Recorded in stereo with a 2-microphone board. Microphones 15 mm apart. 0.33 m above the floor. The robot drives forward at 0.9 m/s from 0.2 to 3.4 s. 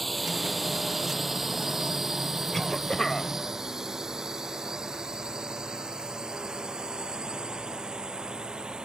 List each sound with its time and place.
0.0 s a drone: 5° left (ahead or behind); by 8.8 s 65° right (ahead or behind)
2.5 s a cough: 20° left (ahead or behind); by 3.3 s 15° left (ahead or behind)